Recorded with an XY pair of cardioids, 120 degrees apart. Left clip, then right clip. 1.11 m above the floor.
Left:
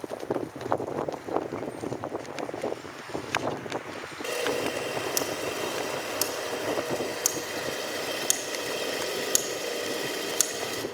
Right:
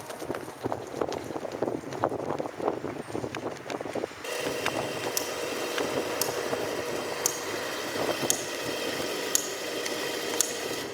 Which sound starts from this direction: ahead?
A camera shutter, at 4.2 s.